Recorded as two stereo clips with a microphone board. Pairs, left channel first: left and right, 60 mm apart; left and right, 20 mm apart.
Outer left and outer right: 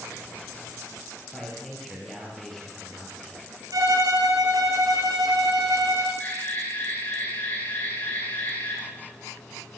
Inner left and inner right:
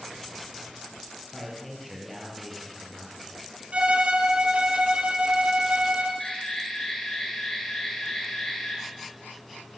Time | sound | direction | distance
1.3 | a man speaking | 10° left (ahead or behind) | 5.5 m
3.7 | a violin | 80° right | 3 m
6.2 | an alarm | 30° left (ahead or behind) | 8.5 m